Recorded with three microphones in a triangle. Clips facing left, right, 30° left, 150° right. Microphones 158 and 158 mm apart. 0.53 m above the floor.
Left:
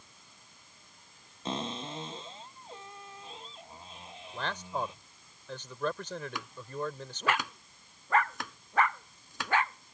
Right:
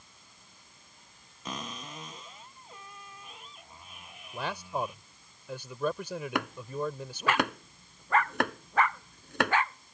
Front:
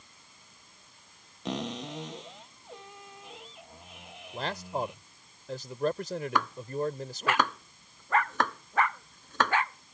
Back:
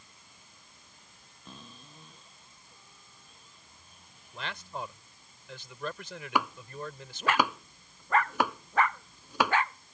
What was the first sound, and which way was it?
A cupboard door, 30° left.